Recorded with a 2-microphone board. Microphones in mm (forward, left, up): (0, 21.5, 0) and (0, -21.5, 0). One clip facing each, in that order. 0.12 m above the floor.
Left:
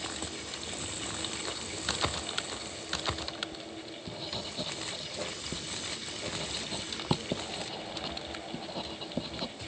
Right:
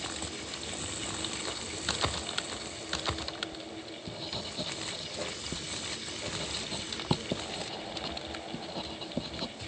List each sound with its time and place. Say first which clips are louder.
3.5 s writing: even; 5° left (ahead or behind)